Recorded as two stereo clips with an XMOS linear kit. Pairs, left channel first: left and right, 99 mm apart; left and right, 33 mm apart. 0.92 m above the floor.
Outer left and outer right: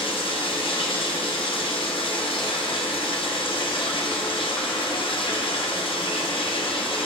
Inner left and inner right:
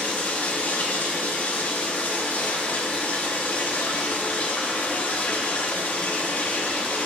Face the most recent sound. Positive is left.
turn(degrees=60)  # may be behind; listen again after turning